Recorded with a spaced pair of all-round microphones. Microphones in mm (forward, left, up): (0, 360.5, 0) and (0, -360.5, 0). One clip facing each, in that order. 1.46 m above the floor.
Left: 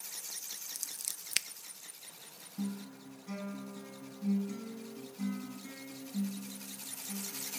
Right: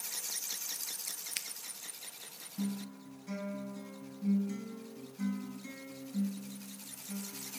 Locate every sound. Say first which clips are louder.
0.8 s scissors: right 3 dB; 85° left, 0.5 m
2.6 s a guitar: right 1 dB; 10° right (ahead or behind), 6.5 m